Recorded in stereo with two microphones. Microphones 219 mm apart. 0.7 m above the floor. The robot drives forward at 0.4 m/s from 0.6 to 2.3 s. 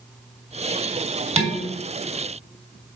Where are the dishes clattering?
30° right (ahead or behind), 1.4 m.